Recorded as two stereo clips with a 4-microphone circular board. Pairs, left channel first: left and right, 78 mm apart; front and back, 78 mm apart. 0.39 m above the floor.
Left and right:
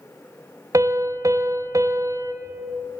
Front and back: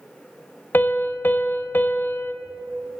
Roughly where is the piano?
Ahead right.